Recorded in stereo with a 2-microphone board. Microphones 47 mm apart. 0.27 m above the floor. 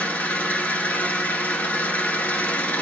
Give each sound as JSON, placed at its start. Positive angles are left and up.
{"t": 0.0, "sound": "an engine running", "side_deg": 35, "distance_m": 1.0}